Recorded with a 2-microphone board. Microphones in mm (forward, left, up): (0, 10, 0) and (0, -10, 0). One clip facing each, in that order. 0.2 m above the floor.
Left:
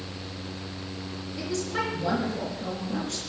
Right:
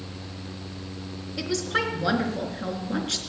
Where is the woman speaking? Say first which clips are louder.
Right 4 dB; 45° right (ahead or behind), 3.5 m.